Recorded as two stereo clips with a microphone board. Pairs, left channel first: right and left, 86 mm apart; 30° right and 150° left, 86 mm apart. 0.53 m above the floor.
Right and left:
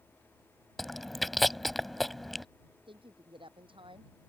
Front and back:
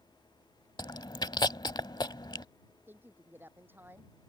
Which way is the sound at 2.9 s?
85° left.